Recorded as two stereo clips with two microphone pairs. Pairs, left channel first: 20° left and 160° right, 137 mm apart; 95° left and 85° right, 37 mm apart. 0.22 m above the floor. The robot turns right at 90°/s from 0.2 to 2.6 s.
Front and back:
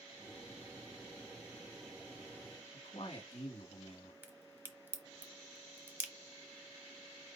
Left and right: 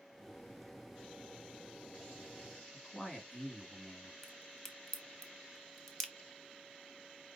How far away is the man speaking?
About 2 m.